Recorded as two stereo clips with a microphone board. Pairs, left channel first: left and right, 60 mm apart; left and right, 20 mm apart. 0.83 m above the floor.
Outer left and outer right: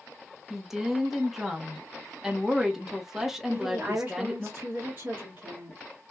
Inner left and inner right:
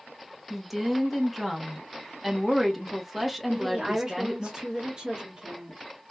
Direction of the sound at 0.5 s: 5° right (ahead or behind).